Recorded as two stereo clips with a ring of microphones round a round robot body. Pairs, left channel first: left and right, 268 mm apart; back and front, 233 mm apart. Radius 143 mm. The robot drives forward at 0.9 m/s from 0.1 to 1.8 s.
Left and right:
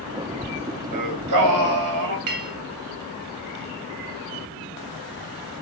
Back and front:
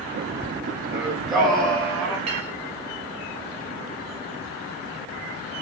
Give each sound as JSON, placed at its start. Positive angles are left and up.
{"t": 0.9, "sound": "singing", "azimuth_deg": -85, "distance_m": 4.0}
{"t": 2.3, "sound": "a clink", "azimuth_deg": -70, "distance_m": 3.5}